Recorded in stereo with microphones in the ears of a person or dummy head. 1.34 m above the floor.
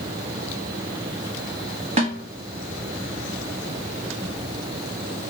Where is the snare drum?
35° right (ahead or behind), 0.9 m.